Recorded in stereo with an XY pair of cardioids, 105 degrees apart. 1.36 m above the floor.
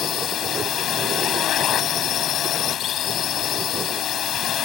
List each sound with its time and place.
0.0 s a drone: 65° left